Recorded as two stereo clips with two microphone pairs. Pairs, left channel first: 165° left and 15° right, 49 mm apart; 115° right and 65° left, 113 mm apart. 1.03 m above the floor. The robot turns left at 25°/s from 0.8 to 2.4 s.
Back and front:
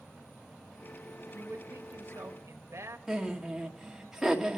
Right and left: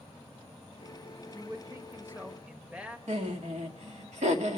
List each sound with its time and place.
1.3 s a man speaking: 10° left, 1.0 m; by 3.0 s 15° right, 1.0 m
3.1 s laughter: 65° left, 1.7 m